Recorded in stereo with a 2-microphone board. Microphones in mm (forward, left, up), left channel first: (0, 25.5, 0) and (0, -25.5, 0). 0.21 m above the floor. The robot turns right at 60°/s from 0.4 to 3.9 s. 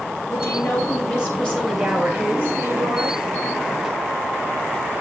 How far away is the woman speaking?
About 4.5 m.